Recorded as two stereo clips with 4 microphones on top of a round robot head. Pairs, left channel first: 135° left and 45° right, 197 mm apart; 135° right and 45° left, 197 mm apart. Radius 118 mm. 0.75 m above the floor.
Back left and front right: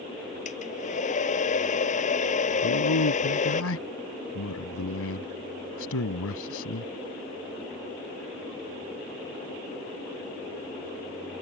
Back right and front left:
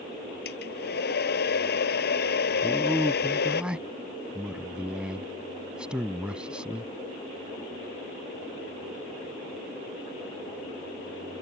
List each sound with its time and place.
0.5 s a hair dryer: 175° right
2.6 s a man speaking: 130° left